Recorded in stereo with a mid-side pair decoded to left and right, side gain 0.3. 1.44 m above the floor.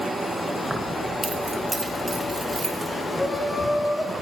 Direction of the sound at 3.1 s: 30° left.